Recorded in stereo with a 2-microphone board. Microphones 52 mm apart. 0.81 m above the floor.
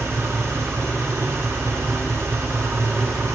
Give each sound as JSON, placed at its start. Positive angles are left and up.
{"t": 0.0, "sound": "an engine running", "side_deg": -55, "distance_m": 0.7}